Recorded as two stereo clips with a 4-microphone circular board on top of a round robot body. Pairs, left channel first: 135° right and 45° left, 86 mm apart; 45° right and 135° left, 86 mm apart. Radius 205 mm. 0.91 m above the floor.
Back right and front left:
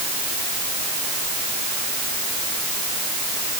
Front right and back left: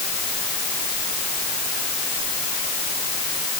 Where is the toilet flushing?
No toilet flushing in this recording.